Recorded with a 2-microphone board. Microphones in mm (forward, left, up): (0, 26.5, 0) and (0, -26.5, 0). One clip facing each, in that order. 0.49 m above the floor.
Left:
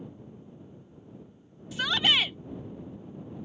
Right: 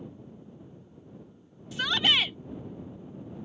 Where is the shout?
Centre (ahead or behind).